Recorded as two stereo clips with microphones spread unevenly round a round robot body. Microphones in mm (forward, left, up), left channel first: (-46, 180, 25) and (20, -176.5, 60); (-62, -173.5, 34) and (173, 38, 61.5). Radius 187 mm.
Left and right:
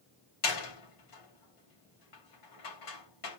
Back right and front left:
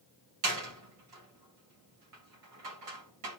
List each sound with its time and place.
0.4 s a door slam: 75° left, 2.5 m